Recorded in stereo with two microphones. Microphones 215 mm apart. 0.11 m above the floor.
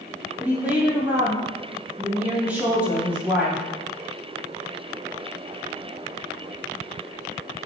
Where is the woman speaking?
5° right (ahead or behind), 3 m.